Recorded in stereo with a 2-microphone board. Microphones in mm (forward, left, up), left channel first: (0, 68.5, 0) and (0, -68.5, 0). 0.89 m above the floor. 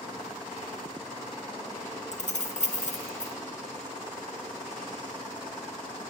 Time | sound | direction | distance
2.1 | keys jangling | 60° left (ahead or behind) | 0.6 m